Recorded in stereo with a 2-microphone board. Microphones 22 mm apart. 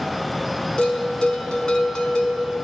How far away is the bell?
About 0.6 m.